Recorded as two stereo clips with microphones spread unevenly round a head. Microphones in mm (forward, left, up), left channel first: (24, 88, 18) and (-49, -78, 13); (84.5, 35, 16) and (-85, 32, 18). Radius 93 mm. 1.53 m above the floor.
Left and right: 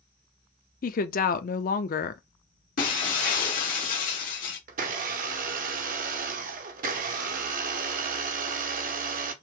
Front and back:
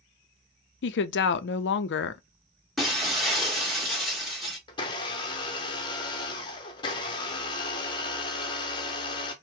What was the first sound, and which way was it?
A woman speaking, 20° left.